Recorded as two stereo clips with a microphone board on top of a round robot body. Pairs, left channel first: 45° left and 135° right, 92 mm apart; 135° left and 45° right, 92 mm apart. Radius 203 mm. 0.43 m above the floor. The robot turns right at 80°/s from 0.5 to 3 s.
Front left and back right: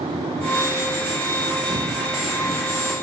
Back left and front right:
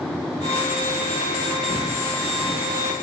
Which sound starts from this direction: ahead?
Footsteps, at 1.7 s.